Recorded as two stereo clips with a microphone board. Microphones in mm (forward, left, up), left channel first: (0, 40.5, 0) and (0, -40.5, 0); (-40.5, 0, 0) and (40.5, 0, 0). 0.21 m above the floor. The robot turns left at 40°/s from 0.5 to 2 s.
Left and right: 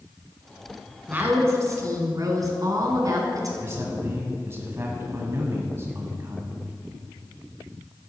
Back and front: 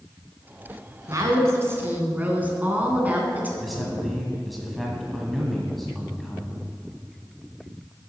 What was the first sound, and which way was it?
A woman speaking, 25° right.